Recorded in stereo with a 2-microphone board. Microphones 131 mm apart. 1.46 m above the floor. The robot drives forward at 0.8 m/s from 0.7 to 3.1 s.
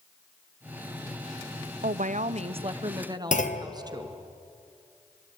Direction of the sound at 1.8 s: 80° right.